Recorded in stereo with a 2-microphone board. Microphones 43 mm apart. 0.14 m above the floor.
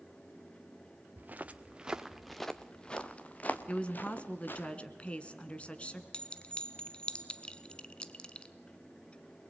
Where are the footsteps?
45° right (ahead or behind), 1.6 m; by 4.7 s 55° left (ahead or behind), 3 m.